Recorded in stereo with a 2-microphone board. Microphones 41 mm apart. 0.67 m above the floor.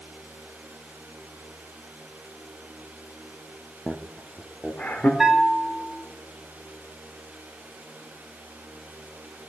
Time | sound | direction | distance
3.9 | laughter | 5° left (ahead or behind) | 0.8 m
5.2 | a bell | 5° right (ahead or behind) | 3 m